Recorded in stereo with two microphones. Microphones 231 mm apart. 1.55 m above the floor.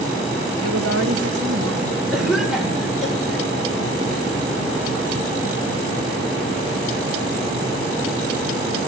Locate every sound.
0.6 s a woman speaking: 75° right (ahead or behind), 2 m; by 2.0 s 85° right, 3 m
2.1 s a cough: centre (ahead or behind), 4.5 m